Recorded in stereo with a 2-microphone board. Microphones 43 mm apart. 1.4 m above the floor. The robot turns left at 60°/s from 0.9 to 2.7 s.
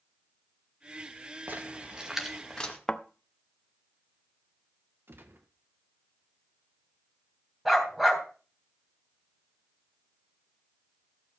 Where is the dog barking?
5° right (ahead or behind), 3 m.